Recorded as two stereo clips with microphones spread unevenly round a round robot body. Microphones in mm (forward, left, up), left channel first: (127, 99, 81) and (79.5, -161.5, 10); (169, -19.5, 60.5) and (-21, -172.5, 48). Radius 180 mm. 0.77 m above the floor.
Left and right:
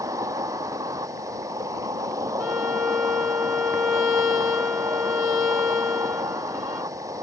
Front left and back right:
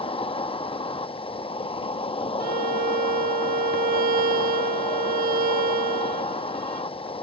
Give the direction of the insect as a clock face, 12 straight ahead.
1 o'clock.